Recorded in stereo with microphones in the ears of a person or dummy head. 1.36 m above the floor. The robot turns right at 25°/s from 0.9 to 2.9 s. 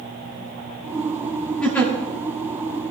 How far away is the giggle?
About 2 m.